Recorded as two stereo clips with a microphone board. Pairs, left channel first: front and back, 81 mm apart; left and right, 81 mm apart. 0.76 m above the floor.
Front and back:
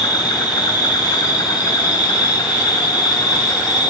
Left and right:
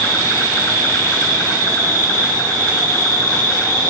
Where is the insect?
35° left, 7 m.